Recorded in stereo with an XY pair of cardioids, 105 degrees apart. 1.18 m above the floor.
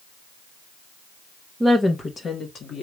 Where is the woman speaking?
10° right, 0.7 m; by 2.8 s 65° left, 1.5 m.